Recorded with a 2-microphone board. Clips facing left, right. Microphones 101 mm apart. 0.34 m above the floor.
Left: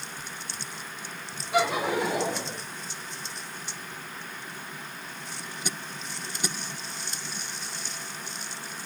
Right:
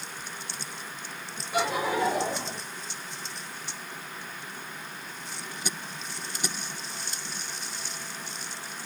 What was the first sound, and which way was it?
Laughter, 80° left.